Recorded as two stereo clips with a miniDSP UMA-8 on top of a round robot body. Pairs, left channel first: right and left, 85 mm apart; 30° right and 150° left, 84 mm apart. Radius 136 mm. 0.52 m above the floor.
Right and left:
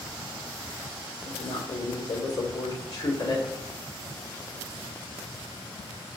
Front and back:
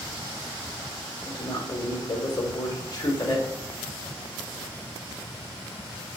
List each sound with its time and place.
1.2 s a woman speaking: 65° right, 2.5 m